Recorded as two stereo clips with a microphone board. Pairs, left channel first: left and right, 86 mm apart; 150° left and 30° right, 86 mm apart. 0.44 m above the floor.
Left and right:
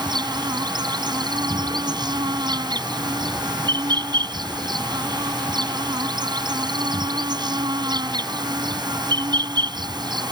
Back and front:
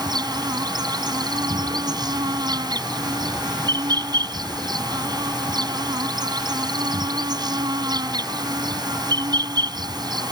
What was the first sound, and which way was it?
An insect, 60° right.